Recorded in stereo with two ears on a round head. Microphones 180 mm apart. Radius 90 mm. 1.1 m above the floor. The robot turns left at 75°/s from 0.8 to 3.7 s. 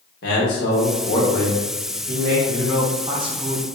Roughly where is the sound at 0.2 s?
Ahead left.